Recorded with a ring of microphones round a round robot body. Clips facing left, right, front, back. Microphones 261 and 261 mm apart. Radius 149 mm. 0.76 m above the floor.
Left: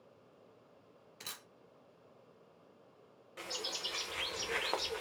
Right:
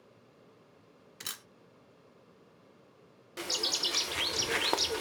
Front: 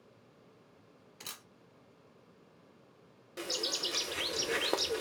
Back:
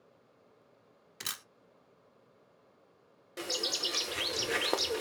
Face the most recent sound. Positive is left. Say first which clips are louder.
# right 6 dB, back 1 dB
turn(degrees=-90)